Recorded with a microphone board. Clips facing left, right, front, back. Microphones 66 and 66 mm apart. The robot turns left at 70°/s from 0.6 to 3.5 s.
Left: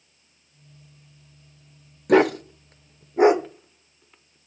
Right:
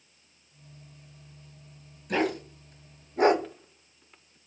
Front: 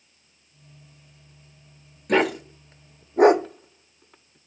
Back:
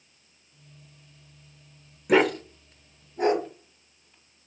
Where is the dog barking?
100° left, 0.6 m; by 4.4 s straight ahead, 0.6 m.